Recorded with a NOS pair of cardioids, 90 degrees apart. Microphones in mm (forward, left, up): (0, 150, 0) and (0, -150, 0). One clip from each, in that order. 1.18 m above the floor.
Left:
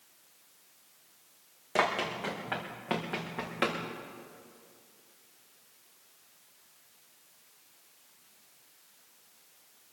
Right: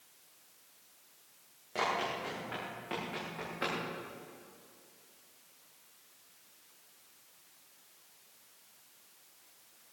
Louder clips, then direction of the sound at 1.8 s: Left 4 dB; 65° left.